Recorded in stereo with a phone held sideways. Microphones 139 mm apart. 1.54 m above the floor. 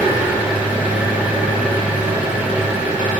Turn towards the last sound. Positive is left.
turn(degrees=-10)  # may be behind; listen again after turning